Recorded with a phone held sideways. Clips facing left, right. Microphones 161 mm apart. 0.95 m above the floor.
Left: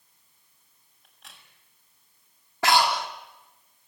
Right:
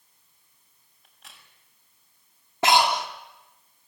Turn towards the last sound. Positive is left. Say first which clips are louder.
# right 1 dB
turn(degrees=-20)  # may be behind; listen again after turning